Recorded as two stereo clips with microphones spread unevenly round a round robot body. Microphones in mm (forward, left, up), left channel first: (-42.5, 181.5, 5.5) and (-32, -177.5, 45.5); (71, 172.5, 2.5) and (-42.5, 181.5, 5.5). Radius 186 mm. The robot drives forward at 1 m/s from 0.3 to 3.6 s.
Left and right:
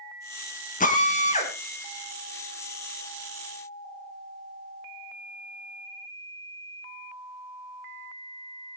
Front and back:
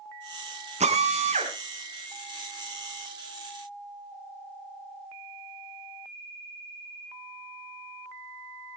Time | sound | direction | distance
0.8 | a drill | 160° left | 3 m